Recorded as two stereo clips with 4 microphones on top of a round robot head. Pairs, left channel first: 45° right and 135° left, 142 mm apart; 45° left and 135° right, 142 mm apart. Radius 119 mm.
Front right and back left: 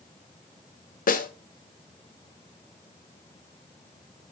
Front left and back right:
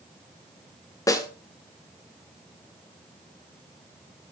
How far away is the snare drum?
About 2 m.